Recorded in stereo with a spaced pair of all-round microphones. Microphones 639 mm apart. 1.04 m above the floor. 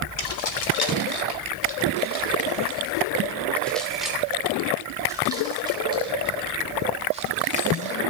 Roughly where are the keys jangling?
Left.